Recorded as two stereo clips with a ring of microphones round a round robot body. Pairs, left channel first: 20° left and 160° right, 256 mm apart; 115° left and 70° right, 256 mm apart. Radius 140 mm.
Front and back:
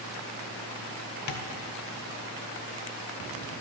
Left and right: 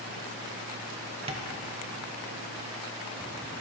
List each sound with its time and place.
1.3 s tapping: straight ahead, 0.8 m